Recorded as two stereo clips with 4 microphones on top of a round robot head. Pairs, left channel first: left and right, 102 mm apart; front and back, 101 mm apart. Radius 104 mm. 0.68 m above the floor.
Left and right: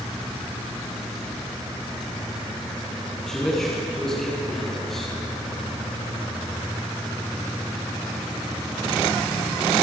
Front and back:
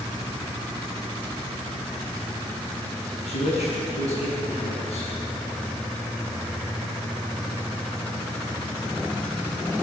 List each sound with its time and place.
3.3 s a man speaking: 5° left, 6 m